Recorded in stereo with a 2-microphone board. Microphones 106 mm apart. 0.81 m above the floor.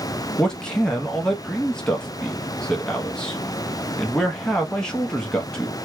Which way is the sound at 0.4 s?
5° left (ahead or behind).